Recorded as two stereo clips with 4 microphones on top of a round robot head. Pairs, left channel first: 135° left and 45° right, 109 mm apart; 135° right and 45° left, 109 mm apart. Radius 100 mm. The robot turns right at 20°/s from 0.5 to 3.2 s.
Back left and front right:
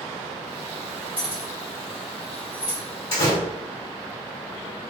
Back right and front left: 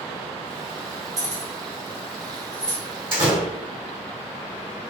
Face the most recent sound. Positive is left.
turn(degrees=95)